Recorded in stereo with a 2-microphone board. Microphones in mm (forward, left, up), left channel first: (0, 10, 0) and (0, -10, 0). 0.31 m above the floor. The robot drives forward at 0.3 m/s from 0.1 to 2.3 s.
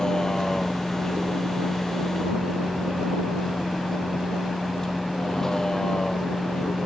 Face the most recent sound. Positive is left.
turn(degrees=30)  # may be behind; listen again after turning